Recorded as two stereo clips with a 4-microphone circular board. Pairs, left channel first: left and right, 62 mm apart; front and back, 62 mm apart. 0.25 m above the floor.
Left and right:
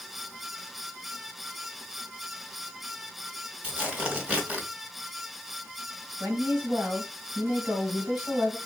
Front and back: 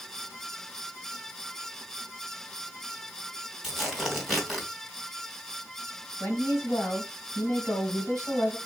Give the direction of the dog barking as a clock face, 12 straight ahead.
I don't hear a dog barking.